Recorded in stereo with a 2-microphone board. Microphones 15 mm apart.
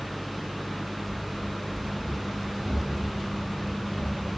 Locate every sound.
1.1 s running footsteps: 85° right, 5.5 m; by 4.3 s 75° right (ahead or behind), 6.5 m